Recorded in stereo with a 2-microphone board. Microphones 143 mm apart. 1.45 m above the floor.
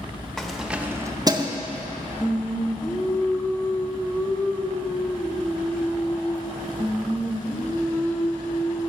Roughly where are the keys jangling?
Centre.